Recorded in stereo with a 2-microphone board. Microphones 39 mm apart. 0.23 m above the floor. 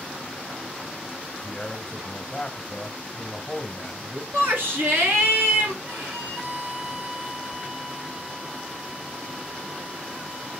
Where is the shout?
65° right (ahead or behind), 3 m.